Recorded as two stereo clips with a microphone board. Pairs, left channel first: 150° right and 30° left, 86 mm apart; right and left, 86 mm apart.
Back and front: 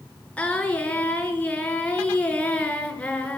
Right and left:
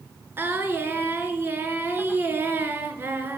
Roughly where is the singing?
Behind left.